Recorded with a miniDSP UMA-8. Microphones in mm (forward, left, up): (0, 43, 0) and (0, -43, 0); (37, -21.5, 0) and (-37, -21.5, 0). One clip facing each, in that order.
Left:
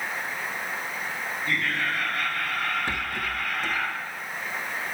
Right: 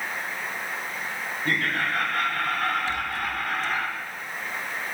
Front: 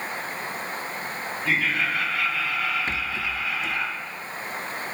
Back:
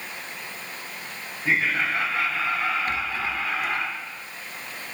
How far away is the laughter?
About 3.5 m.